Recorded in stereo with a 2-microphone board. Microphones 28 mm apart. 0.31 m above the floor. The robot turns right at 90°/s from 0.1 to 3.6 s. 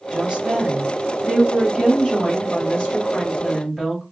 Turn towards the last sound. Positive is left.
turn(degrees=-175)